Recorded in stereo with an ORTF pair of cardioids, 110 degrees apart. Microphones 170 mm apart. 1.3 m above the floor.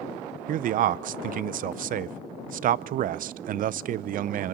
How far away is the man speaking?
About 0.6 m.